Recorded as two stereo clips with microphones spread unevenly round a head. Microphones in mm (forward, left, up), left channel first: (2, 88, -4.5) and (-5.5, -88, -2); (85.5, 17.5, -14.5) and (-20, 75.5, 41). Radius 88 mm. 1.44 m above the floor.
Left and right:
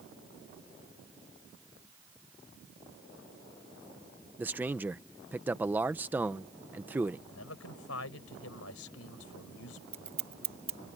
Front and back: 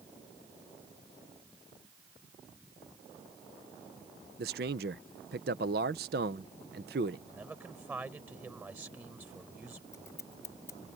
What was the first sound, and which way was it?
A man speaking, 175° right.